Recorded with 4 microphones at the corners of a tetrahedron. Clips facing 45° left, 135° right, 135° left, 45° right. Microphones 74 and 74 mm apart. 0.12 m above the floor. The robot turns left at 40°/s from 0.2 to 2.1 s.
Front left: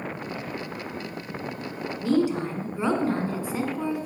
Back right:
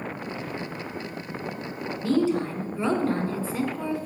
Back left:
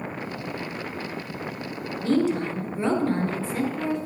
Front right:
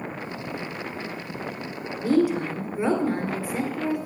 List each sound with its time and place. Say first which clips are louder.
2.0 s a woman speaking: even, front right 1 dB; 15° left, 1.6 m; by 4.1 s 10° left, 1.6 m